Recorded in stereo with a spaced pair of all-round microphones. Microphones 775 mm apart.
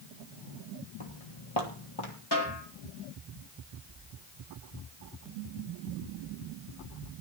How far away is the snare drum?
About 4.5 m.